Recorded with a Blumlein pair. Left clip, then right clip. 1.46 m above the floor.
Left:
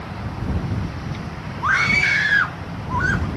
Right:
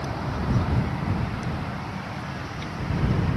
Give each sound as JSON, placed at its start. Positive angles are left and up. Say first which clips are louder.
{"t": 1.6, "sound": "a scream", "louder": "left 18 dB", "azimuth_deg": 45}